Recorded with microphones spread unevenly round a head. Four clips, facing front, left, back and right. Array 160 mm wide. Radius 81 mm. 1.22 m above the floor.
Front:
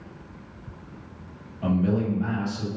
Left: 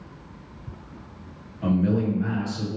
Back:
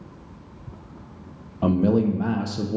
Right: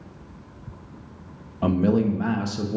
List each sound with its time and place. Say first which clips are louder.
1.6 s a man speaking: right 2 dB, back 4 dB; 150° right, 0.7 m